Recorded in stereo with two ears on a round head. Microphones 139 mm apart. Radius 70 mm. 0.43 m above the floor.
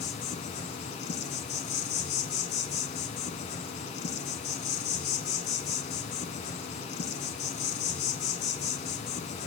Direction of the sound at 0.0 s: 45° left (ahead or behind).